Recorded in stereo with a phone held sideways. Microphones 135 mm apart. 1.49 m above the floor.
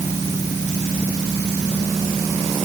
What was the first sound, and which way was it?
Only background noise.